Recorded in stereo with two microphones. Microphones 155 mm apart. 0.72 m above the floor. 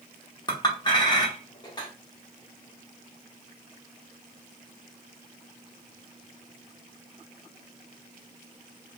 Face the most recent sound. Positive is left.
turn(degrees=25)  # may be behind; listen again after turning